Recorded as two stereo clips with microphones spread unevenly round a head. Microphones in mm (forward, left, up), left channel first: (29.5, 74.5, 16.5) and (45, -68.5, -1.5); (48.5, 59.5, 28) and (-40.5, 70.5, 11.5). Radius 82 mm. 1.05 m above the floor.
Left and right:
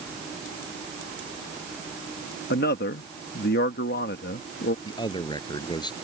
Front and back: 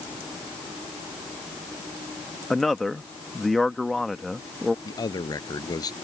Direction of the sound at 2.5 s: 80° left.